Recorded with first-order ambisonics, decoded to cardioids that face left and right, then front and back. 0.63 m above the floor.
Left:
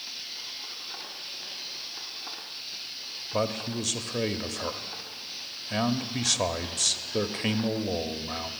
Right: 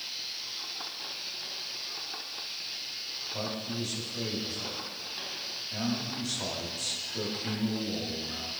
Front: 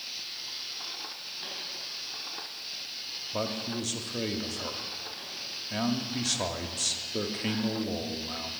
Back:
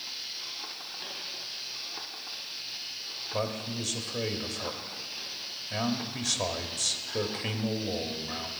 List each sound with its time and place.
3.3 s a man speaking: 85° left, 0.8 m